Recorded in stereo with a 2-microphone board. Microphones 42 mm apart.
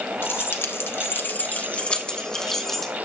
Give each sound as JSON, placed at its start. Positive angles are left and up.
{"t": 0.2, "sound": "keys jangling", "side_deg": 65, "distance_m": 1.7}